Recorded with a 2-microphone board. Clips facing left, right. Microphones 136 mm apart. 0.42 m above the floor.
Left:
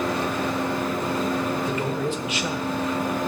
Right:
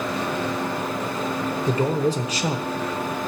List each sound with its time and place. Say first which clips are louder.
1.7 s a man speaking: right 4 dB; 40° right (ahead or behind), 1.0 m